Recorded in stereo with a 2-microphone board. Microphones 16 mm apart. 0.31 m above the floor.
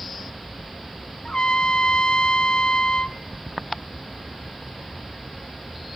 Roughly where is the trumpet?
Left.